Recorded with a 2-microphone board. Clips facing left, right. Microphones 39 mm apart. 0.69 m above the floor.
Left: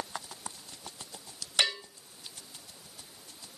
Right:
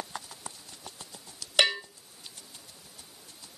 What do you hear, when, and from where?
1.6 s a bell: 50° right (ahead or behind), 0.9 m